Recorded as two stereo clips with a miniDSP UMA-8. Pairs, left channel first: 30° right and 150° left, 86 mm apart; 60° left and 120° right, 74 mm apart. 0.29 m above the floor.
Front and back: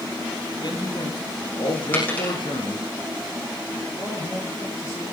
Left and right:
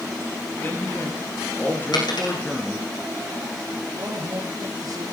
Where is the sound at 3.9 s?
80° right, 5.5 m.